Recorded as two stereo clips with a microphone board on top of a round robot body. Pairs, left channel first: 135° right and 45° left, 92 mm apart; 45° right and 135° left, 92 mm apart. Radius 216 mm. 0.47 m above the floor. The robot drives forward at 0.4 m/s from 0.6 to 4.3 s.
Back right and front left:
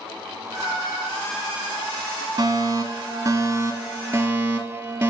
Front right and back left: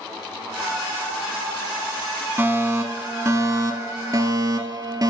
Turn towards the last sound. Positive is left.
turn(degrees=105)